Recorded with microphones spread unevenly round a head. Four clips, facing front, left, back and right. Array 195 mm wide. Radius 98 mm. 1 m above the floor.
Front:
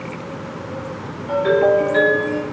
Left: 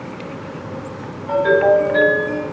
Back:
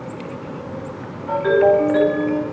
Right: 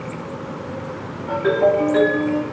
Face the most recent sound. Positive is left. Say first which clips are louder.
# left 3 dB, even
turn(degrees=-115)